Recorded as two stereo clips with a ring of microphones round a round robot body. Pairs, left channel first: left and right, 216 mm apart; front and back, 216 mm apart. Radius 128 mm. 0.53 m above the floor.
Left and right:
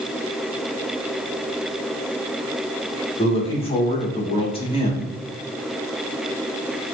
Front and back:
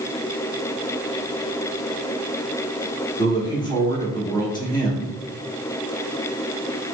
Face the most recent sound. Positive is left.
turn(degrees=55)